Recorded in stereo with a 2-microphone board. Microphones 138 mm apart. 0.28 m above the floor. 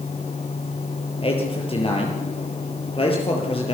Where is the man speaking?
40° left (ahead or behind), 7.5 m.